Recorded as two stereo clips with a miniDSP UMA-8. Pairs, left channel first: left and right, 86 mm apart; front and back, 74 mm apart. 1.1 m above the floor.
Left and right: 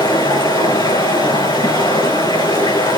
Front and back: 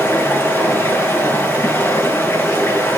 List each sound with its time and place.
0.0 s running water: 65° left, 6.5 m